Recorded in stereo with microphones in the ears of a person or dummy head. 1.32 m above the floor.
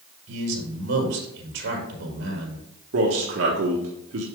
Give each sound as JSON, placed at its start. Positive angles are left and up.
{"t": 0.3, "sound": "a man speaking", "side_deg": -70, "distance_m": 4.0}
{"t": 2.9, "sound": "a man speaking", "side_deg": -85, "distance_m": 1.4}